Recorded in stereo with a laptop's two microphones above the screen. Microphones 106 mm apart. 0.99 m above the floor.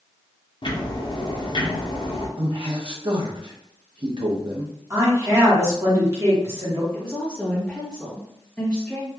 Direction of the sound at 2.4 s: 55° right (ahead or behind).